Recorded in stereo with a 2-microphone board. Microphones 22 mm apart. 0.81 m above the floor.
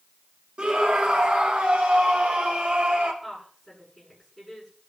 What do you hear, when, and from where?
0.6 s a scream: 60° right (ahead or behind), 1.7 m; by 3.1 s 75° right (ahead or behind), 3.5 m
3.2 s a woman speaking: 5° left (ahead or behind), 8.5 m